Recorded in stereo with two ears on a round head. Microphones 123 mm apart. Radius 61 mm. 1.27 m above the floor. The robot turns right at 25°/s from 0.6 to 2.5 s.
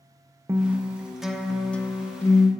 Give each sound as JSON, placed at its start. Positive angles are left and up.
{"t": 0.5, "sound": "a guitar", "azimuth_deg": -20, "distance_m": 0.6}